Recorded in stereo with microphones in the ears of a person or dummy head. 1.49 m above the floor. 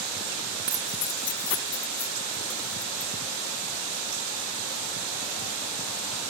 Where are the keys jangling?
15° right (ahead or behind); by 3.1 s 60° left (ahead or behind).